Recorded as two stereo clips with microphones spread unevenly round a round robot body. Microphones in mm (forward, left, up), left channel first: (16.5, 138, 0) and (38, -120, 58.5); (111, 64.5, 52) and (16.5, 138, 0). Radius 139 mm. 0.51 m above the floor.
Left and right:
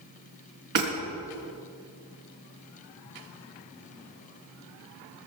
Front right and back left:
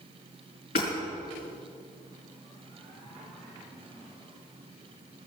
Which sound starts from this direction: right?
Hammering, at 0.8 s.